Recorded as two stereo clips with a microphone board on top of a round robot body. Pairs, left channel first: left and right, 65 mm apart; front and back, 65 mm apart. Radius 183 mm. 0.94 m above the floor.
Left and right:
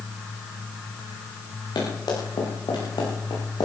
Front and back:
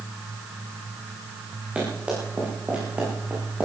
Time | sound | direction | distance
1.8 | running footsteps | 105° left | 7.5 m